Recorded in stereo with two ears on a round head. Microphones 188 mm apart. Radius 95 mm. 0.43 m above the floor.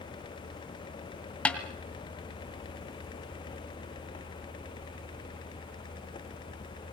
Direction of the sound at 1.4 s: 5° left (ahead or behind).